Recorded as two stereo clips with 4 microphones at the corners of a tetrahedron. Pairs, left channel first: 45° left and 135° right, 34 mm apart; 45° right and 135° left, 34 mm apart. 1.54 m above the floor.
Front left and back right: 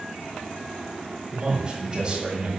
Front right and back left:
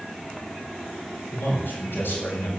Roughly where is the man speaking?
Right.